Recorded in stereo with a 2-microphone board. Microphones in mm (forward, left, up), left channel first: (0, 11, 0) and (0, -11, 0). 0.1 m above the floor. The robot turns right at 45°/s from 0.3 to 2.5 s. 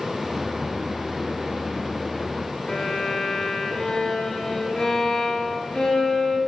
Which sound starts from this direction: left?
A violin, at 2.7 s.